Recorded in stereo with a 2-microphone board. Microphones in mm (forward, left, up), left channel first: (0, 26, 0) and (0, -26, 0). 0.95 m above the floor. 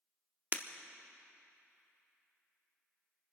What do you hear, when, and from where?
0.5 s breaking glass: 35° right (ahead or behind), 0.8 m